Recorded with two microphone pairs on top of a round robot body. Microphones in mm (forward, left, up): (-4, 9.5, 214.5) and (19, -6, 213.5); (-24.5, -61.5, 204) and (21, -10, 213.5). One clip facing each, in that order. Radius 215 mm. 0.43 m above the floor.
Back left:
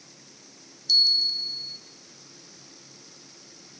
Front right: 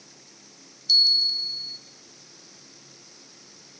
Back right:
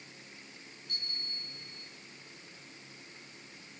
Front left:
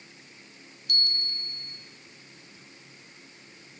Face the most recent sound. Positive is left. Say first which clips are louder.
# front right 1 dB, front left 11 dB
turn(degrees=35)